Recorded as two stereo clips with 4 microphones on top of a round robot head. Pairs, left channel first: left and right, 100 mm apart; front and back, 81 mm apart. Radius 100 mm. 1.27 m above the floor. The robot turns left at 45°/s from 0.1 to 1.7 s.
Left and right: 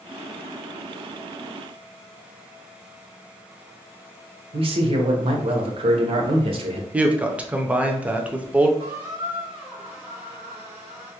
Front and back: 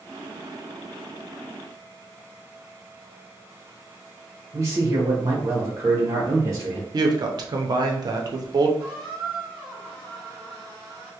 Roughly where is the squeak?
Behind right.